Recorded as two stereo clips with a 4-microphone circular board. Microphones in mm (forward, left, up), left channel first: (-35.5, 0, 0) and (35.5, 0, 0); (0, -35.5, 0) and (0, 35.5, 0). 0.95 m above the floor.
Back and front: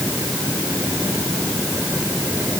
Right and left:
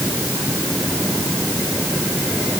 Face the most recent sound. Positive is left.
No sound to turn to.